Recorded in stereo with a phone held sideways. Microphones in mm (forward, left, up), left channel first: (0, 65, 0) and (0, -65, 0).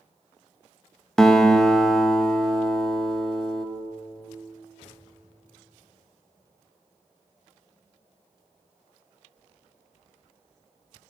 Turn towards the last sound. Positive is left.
turn(degrees=5)  # may be behind; listen again after turning